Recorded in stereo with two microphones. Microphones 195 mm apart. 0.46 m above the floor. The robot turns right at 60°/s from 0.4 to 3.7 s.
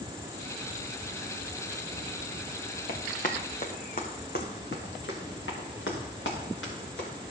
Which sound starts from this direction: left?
Running footsteps, at 2.9 s.